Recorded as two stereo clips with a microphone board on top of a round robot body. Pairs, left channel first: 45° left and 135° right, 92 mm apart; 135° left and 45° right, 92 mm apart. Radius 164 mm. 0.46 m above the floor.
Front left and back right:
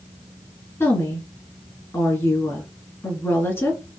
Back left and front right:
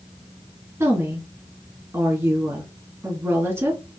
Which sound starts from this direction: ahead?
A woman speaking, at 0.8 s.